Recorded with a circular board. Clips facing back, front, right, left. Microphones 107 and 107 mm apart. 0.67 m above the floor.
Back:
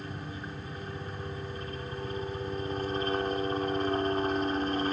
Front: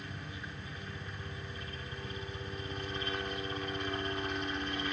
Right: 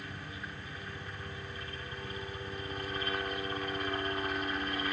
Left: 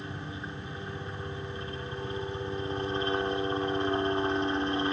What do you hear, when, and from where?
0.0 s a helicopter: 145° left